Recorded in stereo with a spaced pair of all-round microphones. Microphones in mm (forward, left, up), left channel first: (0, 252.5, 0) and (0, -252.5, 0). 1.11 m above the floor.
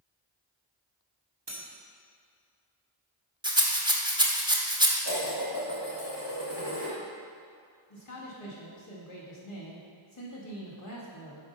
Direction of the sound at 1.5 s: 55° right (ahead or behind).